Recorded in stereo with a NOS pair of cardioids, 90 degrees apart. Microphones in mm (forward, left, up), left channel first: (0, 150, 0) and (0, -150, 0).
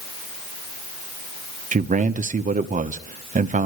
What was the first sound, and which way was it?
A man speaking, 25° right.